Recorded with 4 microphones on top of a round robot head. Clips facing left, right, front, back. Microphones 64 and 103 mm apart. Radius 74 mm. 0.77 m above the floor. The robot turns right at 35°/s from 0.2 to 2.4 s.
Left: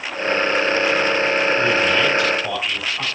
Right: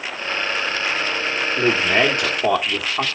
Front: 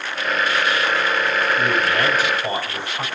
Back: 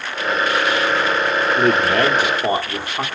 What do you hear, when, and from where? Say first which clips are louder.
1.6 s a man speaking: left 1 dB, back 4 dB; 160° right, 2 m; by 3.0 s 130° right, 2 m